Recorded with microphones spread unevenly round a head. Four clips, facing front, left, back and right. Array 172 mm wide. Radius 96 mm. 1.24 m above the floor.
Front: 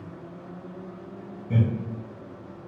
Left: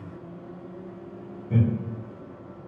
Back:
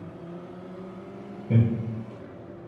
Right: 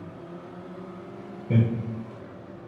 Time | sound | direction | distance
1.5 | laughter | 100° right | 1.1 m